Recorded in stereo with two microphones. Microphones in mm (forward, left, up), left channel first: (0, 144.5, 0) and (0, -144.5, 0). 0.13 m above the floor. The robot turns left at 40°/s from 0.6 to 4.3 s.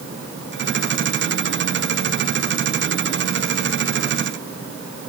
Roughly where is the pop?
I don't hear a pop.